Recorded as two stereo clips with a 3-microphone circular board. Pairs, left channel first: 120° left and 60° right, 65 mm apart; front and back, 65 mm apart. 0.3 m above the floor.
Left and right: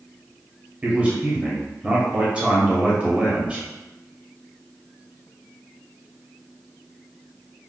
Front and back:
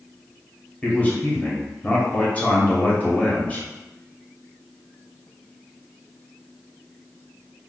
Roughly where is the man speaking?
Ahead.